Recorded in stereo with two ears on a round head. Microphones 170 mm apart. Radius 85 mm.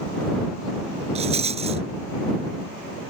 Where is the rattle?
35° right (ahead or behind).